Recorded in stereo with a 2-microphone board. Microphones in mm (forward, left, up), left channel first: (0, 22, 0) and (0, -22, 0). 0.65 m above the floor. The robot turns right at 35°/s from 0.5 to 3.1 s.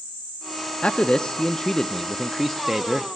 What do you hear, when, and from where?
0.8 s a man speaking: 25° left (ahead or behind), 0.6 m; by 3.1 s 5° right (ahead or behind), 0.6 m